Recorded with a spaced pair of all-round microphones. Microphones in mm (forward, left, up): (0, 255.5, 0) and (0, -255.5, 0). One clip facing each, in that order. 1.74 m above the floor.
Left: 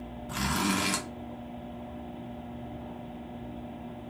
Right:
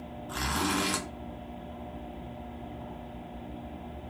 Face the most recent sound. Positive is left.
turn(degrees=50)  # may be behind; listen again after turning